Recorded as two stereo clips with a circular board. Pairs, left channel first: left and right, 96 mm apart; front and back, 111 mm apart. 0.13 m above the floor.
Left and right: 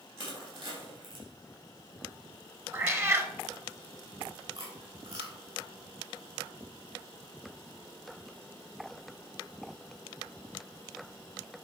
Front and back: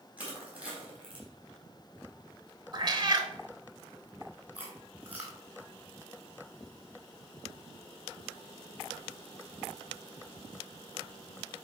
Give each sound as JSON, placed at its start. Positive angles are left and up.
{"t": 0.2, "sound": "crushing", "azimuth_deg": -105, "distance_m": 3.5}
{"t": 2.7, "sound": "a cat meowing", "azimuth_deg": -145, "distance_m": 0.8}
{"t": 4.5, "sound": "chewing", "azimuth_deg": -105, "distance_m": 2.5}